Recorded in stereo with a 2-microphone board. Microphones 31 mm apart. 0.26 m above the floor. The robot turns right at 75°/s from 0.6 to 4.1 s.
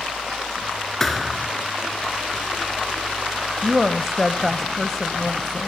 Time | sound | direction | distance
1.0 | a thud | 170° left | 1.6 m
3.6 | a woman speaking | 15° right (ahead or behind) | 1.0 m